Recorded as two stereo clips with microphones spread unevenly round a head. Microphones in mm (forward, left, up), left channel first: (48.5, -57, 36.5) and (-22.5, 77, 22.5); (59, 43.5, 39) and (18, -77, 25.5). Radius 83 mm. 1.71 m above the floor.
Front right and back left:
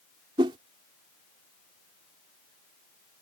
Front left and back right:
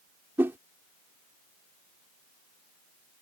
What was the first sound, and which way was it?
A whoosh, 170° left.